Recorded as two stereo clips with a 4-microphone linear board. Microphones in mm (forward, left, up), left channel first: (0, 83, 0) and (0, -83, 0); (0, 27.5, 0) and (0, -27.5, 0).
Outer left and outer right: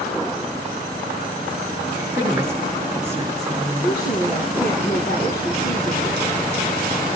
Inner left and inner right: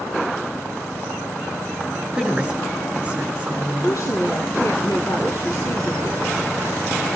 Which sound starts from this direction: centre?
A woman speaking, at 2.1 s.